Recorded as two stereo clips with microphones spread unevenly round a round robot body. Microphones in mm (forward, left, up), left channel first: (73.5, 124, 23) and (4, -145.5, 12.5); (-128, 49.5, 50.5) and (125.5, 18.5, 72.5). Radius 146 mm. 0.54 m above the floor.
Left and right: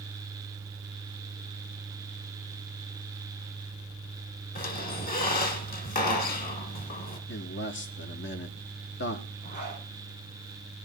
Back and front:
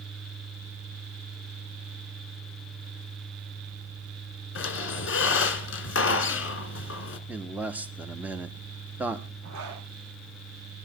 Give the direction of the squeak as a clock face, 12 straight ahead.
7 o'clock.